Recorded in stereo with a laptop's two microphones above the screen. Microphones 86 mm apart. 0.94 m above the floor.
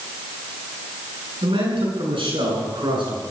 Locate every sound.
1.4 s a man speaking: 85° right, 9 m; by 3.2 s 70° right (ahead or behind), 10 m